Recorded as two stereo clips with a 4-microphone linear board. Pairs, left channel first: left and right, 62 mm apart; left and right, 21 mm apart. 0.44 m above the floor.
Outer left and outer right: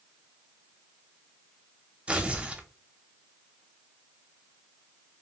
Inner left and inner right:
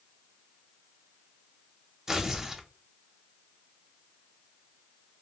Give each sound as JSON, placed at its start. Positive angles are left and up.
{"t": 2.1, "sound": "tearing paper", "side_deg": -20, "distance_m": 0.6}